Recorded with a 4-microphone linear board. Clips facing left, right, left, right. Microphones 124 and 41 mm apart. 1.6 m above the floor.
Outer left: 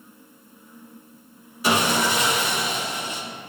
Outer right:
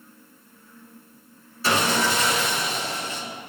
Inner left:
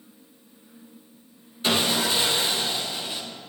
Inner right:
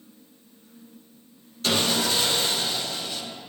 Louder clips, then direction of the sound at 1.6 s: Outer left 1 dB, inner left 1 dB; 15° left (ahead or behind).